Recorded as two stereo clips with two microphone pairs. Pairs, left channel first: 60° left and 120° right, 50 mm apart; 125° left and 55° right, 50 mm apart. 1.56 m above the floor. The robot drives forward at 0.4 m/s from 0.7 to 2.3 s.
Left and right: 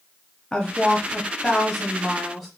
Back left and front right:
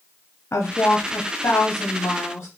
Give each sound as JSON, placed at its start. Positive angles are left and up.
{"t": 0.5, "sound": "a woman speaking", "azimuth_deg": 140, "distance_m": 0.6}